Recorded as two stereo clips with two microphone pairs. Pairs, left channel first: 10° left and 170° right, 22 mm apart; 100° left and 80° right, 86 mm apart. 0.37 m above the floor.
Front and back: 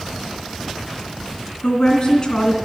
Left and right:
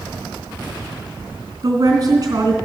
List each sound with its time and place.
1.6 s a woman speaking: 35° right, 3 m